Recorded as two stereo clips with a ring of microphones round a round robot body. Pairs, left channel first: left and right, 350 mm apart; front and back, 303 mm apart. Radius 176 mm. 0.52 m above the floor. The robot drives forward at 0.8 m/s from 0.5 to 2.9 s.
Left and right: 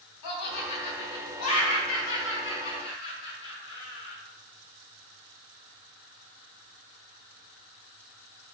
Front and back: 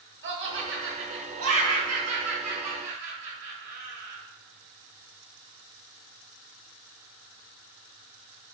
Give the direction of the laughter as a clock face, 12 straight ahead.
8 o'clock.